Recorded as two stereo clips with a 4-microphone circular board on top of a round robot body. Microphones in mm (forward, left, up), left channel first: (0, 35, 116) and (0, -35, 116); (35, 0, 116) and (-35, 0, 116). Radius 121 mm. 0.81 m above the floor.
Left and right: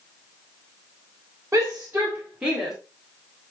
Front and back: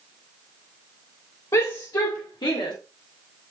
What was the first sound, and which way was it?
A shout, 35° right.